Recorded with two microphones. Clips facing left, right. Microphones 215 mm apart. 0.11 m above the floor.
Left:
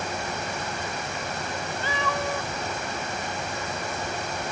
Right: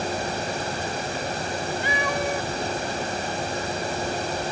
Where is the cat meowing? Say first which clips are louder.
Right 1 dB; 15° right (ahead or behind).